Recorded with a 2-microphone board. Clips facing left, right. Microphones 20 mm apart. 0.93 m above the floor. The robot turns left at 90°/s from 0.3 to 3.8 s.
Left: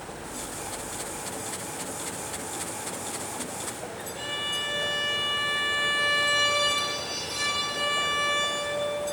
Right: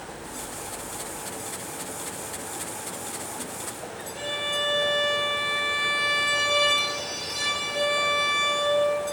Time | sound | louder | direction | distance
4.2 | a violin | right 3 dB | 15° right (ahead or behind) | 1.9 m